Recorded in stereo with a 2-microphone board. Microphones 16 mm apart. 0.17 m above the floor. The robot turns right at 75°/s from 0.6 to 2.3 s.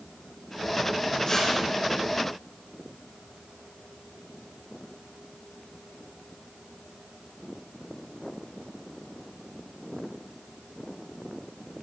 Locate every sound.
1.3 s tearing paper: 25° left (ahead or behind), 9.5 m; by 1.5 s 5° left (ahead or behind), 9.5 m